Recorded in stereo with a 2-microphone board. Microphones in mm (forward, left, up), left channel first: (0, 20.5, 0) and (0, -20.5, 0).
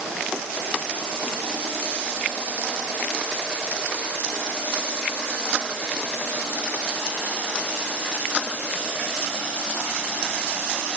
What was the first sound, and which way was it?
Only background noise.